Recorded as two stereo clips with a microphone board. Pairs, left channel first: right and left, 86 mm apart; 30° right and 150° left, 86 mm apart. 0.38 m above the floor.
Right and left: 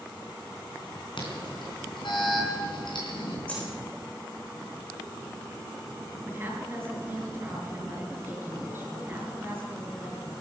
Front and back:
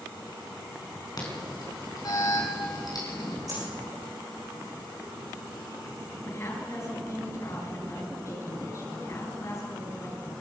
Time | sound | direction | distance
1.2 | an alarm | 70° right | 4 m
3.5 | a dropped coin | 165° right | 7.5 m
6.3 | a woman speaking | 25° left | 5 m